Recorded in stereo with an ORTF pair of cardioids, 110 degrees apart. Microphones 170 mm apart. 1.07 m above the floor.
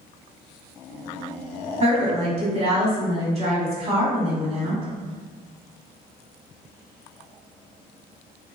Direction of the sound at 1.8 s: 35° right.